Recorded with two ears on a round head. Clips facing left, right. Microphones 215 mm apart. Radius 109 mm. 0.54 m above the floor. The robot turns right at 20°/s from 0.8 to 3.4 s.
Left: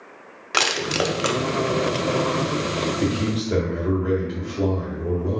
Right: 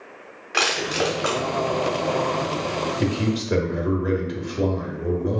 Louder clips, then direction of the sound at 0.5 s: Even; 60° left (ahead or behind).